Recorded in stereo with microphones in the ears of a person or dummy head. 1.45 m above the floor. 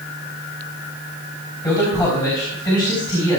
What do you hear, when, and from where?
1.6 s a man speaking: 20° left (ahead or behind), 3 m; by 3.4 s 25° left (ahead or behind), 4 m